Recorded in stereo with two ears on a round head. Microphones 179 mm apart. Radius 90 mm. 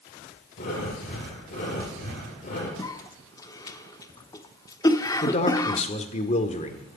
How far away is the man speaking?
About 1.6 m.